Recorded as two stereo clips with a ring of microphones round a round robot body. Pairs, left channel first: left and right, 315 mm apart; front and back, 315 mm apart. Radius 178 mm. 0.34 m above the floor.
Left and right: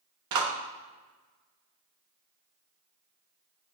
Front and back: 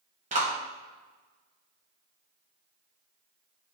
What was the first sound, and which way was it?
A clap, 115° right.